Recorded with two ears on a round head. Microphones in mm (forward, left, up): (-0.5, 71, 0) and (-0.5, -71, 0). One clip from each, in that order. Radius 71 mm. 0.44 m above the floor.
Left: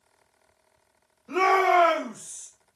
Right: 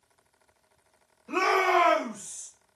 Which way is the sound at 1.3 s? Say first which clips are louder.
Left 3 dB; 15° right (ahead or behind).